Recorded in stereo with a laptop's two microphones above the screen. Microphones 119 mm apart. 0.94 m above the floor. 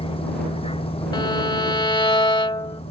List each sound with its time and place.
0.0 s a vehicle: 50° left (ahead or behind); by 2.9 s 55° left (ahead or behind)
1.1 s a violin: 40° left (ahead or behind)